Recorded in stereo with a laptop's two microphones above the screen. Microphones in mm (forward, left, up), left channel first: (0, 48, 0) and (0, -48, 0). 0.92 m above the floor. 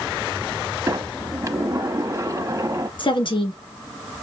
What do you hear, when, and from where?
0.9 s a sliding door: 30° right (ahead or behind), 0.8 m
3.0 s a woman speaking: 55° left (ahead or behind), 1.5 m